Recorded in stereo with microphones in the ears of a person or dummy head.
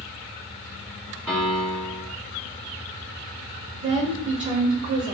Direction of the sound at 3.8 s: 20° right (ahead or behind).